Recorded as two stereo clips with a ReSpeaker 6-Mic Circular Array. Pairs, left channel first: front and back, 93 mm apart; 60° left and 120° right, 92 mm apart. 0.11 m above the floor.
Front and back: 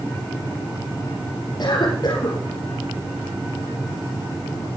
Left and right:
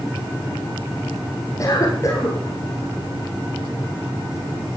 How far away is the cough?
About 2 m.